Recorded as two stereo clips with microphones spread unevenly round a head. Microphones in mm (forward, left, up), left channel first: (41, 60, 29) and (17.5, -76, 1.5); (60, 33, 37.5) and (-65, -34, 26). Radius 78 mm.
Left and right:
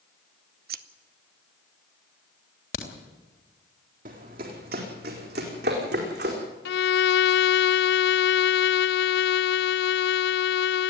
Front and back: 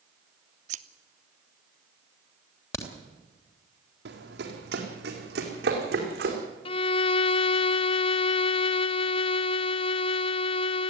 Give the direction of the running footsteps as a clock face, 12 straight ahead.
5 o'clock.